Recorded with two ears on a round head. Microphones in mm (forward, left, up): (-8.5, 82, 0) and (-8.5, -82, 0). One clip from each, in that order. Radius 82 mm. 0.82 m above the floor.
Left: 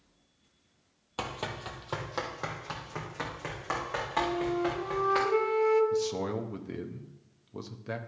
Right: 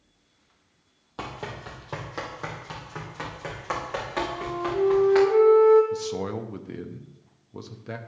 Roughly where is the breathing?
No breathing in this recording.